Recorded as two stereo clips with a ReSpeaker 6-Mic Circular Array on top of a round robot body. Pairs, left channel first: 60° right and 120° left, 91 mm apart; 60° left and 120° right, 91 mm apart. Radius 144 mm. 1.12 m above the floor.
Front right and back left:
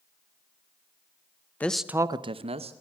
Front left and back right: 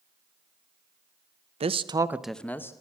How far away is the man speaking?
About 0.9 m.